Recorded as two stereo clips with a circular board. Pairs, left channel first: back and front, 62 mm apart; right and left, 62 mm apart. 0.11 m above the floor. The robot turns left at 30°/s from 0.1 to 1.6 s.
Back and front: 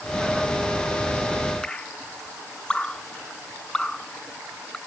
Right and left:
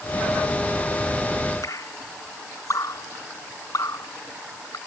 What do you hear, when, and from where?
1.6 s dripping: 105° right